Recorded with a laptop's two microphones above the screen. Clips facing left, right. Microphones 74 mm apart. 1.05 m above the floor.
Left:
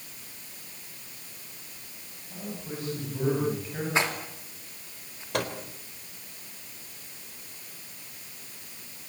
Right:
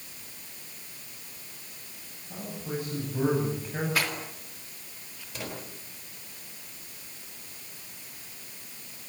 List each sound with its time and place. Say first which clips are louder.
2.3 s a man speaking: right 2 dB; 15° right (ahead or behind), 8 m
4.0 s a rattle: left 3 dB; 25° left (ahead or behind), 3 m
5.3 s a microwave: left 9 dB; 65° left (ahead or behind), 3.5 m